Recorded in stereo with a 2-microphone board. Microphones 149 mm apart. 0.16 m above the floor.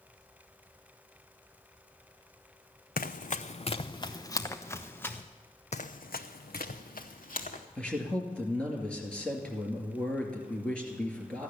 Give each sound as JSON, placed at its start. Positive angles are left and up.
{"t": 3.0, "sound": "running footsteps", "side_deg": 75, "distance_m": 0.5}
{"t": 5.7, "sound": "running footsteps", "side_deg": 50, "distance_m": 0.6}
{"t": 7.8, "sound": "a man speaking", "side_deg": 5, "distance_m": 2.0}